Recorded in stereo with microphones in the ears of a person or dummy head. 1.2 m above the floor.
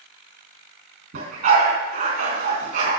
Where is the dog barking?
55° right (ahead or behind), 3.5 m.